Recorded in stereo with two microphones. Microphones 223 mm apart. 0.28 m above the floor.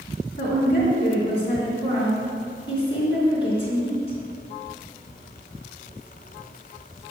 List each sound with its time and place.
0.4 s a woman speaking: 25° left (ahead or behind), 3 m